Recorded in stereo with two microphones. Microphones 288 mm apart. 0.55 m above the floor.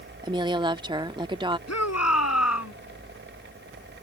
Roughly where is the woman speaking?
Centre.